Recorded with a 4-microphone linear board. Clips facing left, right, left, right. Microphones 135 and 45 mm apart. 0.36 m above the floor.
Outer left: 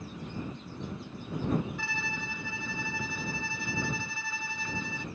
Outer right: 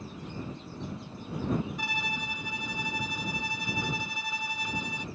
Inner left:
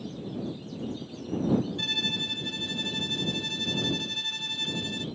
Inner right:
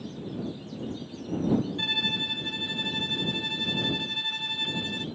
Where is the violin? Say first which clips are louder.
Outer right 2 dB, inner right 2 dB; 15° right (ahead or behind).